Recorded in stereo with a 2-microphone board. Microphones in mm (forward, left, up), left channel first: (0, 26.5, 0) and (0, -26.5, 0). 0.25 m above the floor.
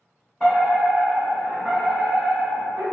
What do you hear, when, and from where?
0.4 s a fire alarm: centre (ahead or behind), 1.9 m